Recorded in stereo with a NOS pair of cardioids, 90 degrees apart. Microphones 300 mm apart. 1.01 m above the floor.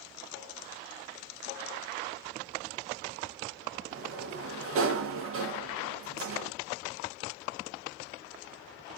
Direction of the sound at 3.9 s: 50° right.